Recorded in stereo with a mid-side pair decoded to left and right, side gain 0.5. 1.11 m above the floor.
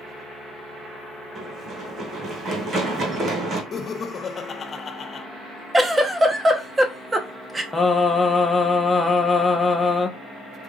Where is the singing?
20° left, 1.1 m.